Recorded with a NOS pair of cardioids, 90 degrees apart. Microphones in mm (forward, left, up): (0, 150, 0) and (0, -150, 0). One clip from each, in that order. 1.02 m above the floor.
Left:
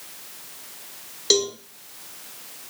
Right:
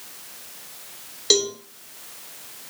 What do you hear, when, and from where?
1.3 s a cowbell: straight ahead, 2.5 m